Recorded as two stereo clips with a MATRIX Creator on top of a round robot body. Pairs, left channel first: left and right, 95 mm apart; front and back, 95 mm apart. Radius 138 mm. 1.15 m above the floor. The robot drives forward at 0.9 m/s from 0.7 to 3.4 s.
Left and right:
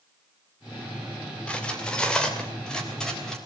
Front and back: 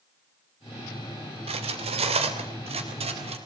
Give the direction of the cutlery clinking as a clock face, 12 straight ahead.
6 o'clock.